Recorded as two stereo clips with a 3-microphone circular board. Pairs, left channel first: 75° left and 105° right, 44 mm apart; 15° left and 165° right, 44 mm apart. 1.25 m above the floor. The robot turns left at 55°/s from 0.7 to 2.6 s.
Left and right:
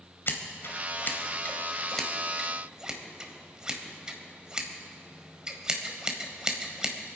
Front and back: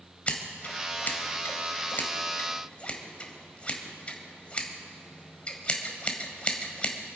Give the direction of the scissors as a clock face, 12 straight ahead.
10 o'clock.